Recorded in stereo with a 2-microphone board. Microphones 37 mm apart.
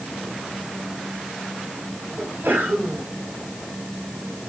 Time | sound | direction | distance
2.2 | a sneeze | 75° right (ahead or behind) | 4.5 m